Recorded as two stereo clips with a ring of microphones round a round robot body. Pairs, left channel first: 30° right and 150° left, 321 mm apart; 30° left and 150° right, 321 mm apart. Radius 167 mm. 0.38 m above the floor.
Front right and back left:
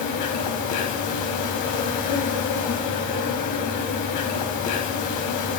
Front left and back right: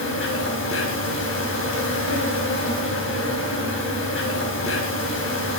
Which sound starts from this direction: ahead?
An insect, at 0.0 s.